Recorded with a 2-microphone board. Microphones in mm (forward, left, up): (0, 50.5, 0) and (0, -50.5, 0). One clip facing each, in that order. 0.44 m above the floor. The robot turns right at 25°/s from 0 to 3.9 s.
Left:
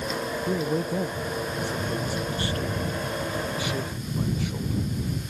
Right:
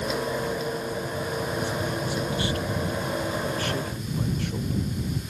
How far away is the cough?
No cough in this recording.